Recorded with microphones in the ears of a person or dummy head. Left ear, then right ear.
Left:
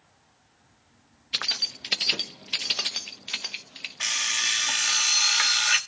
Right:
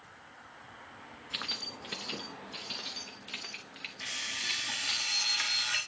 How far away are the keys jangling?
About 1.0 m.